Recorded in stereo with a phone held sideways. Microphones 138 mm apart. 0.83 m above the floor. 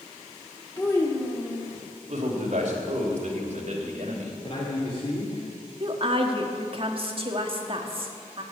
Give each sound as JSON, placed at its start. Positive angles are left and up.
{"t": 0.8, "sound": "a child speaking", "side_deg": 20, "distance_m": 1.0}
{"t": 2.1, "sound": "a man speaking", "side_deg": -55, "distance_m": 3.0}
{"t": 4.4, "sound": "a man speaking", "side_deg": 45, "distance_m": 2.5}
{"t": 5.8, "sound": "a woman speaking", "side_deg": -40, "distance_m": 1.5}